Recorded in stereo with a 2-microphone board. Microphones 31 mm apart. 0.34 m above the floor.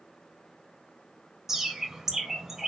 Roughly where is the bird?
Centre.